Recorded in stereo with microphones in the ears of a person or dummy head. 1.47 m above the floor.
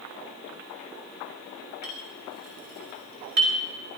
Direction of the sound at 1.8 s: 55° right (ahead or behind).